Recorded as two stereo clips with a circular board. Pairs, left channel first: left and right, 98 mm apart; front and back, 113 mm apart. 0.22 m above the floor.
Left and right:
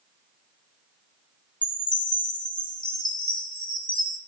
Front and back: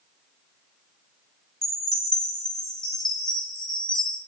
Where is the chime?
85° left, 0.8 m.